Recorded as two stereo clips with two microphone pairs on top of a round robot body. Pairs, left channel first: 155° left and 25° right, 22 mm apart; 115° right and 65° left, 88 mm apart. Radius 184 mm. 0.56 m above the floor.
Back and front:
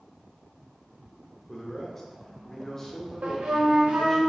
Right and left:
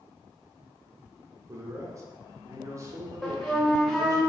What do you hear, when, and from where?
1.5 s a man speaking: 90° left, 1.3 m
3.2 s a flute: 30° right, 0.7 m